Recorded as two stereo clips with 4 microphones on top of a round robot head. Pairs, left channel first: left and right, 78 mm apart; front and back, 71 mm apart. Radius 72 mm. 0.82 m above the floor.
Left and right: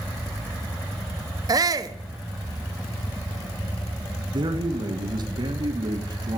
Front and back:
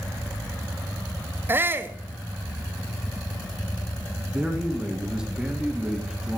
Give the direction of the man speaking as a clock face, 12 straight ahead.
3 o'clock.